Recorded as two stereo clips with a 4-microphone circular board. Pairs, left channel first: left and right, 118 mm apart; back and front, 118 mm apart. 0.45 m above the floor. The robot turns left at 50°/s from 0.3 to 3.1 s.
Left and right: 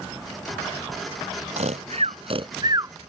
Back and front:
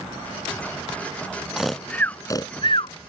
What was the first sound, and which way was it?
Snoring, 85° right.